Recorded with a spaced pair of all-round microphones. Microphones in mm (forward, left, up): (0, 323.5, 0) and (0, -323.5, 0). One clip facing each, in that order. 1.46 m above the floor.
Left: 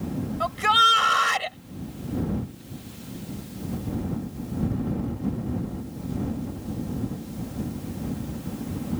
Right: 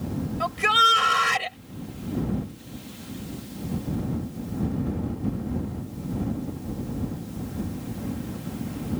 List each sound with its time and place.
0.4 s a shout: 50° right (ahead or behind)